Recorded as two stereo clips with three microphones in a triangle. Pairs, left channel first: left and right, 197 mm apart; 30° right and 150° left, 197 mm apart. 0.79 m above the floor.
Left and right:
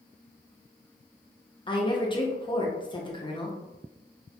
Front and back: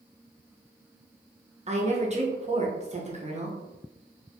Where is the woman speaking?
135° left, 0.7 m.